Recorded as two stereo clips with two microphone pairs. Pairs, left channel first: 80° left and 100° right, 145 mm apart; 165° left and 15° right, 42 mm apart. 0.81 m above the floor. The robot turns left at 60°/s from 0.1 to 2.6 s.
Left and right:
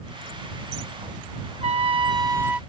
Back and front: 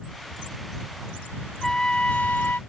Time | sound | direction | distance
1.6 | a trumpet | 120° right | ?